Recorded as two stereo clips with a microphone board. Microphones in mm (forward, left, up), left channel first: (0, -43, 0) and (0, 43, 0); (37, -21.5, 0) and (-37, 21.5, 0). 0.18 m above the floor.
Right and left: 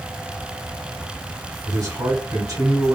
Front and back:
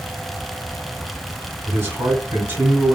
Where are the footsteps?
No footsteps in this recording.